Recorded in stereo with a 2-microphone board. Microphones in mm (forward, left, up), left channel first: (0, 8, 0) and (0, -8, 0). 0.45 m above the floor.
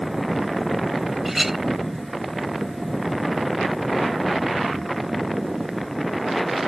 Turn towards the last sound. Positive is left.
turn(degrees=-20)  # may be behind; listen again after turning